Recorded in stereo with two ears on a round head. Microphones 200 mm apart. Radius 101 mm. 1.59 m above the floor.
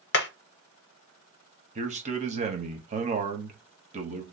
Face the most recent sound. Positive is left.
turn(degrees=-35)  # may be behind; listen again after turning